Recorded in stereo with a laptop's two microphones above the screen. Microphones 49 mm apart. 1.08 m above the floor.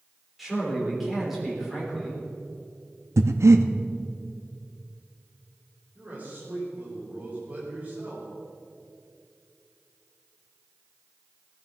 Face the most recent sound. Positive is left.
turn(degrees=-35)  # may be behind; listen again after turning